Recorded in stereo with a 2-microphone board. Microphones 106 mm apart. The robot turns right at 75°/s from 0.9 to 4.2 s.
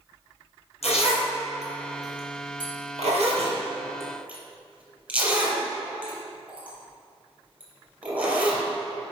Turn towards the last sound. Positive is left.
turn(degrees=-15)  # may be behind; listen again after turning